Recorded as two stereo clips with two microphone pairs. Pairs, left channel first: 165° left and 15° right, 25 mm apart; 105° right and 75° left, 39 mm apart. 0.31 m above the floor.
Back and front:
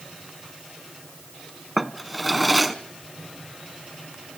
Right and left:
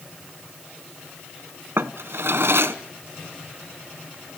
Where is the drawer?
75° left, 1.0 m.